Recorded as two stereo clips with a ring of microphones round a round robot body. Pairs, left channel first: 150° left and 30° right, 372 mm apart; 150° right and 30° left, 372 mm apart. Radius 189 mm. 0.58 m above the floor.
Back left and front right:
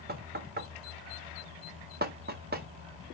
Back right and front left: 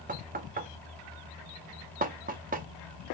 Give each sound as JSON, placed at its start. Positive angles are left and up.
{"t": 0.1, "sound": "knocking", "azimuth_deg": -5, "distance_m": 0.7}